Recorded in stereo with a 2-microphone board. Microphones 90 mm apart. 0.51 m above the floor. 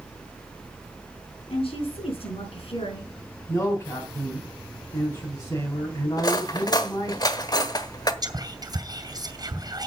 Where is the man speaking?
35° left (ahead or behind), 3.5 m.